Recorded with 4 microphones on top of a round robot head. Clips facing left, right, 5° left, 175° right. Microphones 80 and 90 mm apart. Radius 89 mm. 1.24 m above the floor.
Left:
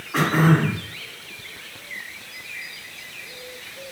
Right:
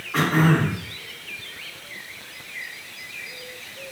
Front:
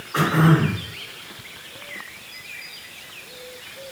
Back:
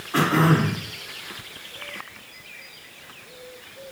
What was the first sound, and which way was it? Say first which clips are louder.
Throat clearing: left 1 dB, front 1 dB; 175° left.